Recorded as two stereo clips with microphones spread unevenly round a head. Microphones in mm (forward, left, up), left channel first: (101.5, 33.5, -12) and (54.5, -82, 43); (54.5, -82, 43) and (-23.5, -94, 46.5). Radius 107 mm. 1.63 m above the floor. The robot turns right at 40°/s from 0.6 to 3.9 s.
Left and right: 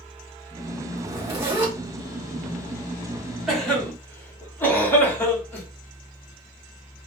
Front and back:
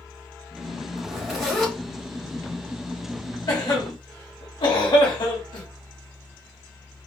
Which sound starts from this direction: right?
A zipper, at 1.0 s.